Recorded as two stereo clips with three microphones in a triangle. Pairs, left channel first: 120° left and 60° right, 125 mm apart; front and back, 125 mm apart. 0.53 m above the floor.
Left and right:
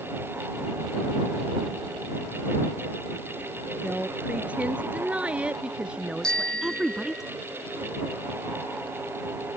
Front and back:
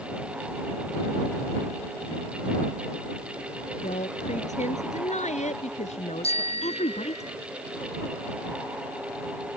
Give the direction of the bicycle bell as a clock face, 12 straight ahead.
11 o'clock.